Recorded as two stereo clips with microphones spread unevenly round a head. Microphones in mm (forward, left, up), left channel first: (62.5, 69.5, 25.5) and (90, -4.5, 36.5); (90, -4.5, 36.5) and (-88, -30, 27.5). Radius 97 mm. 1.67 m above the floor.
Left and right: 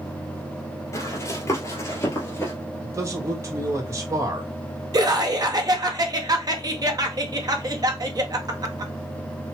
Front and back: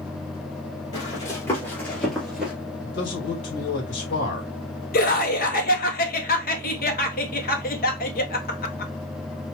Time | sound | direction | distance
0.9 | running footsteps | 70° left | 2 m
2.8 | a man speaking | 15° right | 1.8 m
4.9 | laughter | 35° right | 1.6 m